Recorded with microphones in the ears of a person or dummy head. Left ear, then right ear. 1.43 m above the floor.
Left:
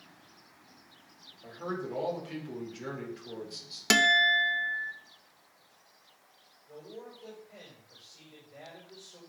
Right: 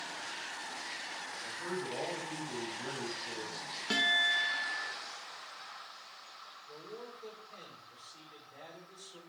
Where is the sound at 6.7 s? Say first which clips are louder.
Left 3 dB; 60° right (ahead or behind), 4 m.